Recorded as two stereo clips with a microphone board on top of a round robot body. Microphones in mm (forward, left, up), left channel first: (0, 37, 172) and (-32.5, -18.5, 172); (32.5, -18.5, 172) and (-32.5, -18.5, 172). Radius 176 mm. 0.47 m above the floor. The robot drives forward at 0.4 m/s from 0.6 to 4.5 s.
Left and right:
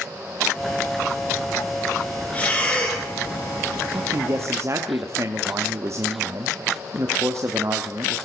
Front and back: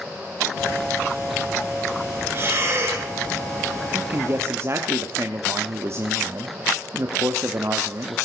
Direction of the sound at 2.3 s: 125° left.